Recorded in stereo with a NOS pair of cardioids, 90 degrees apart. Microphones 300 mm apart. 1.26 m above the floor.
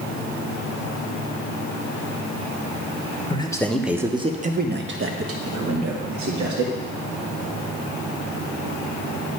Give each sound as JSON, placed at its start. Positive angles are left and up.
{"t": 3.3, "sound": "a man speaking", "azimuth_deg": 20, "distance_m": 1.1}